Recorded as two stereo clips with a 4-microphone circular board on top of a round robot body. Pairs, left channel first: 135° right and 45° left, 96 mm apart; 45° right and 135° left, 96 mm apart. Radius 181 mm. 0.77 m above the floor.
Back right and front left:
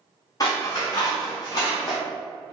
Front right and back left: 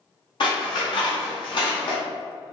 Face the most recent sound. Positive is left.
turn(degrees=-80)